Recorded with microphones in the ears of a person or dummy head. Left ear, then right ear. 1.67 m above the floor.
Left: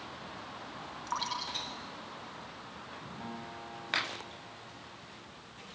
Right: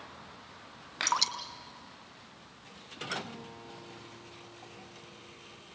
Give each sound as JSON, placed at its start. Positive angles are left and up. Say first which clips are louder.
{"t": 1.1, "sound": "dripping", "louder": "right 5 dB", "side_deg": -80, "distance_m": 2.5}
{"t": 3.2, "sound": "a guitar", "louder": "left 2 dB", "side_deg": 75, "distance_m": 6.5}